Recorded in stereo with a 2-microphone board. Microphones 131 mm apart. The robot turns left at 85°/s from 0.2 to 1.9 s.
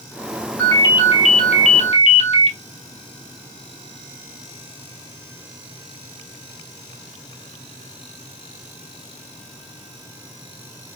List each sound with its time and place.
0.6 s a ringtone: 165° left, 1.6 m; by 2.6 s 55° left, 1.6 m